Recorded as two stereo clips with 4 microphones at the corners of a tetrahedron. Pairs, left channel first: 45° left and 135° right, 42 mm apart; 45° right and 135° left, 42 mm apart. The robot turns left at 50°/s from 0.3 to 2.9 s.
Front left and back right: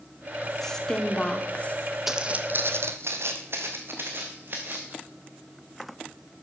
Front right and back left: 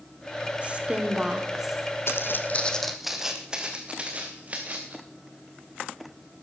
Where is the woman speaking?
115° left, 1.4 m; by 1.9 s 50° left, 1.4 m.